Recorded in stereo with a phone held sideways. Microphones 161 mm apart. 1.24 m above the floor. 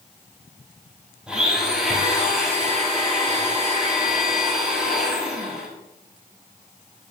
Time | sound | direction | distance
1.3 | a blender | 5° right (ahead or behind) | 6 m